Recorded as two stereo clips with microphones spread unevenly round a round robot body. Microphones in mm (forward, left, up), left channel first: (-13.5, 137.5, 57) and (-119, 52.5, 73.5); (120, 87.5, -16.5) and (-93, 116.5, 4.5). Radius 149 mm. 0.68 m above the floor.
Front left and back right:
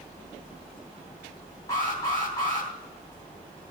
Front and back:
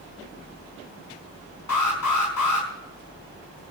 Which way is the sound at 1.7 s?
35° right.